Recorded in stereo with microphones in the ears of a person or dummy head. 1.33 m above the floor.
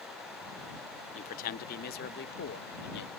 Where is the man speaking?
40° left (ahead or behind); by 3.1 s 60° left (ahead or behind).